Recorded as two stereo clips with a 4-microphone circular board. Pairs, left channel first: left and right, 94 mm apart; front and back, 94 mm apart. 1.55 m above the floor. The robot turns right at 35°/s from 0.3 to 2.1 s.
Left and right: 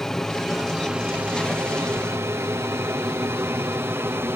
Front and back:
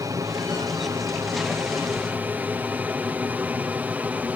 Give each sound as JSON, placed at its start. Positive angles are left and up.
{"t": 0.0, "sound": "an aircraft", "azimuth_deg": 175}